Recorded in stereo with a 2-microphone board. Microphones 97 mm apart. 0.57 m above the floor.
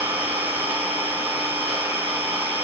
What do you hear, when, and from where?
0.0 s an engine running: 25° right (ahead or behind), 2 m